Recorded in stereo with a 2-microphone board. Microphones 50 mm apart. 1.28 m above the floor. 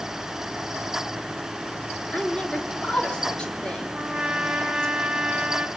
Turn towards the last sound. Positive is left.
turn(degrees=-15)  # may be behind; listen again after turning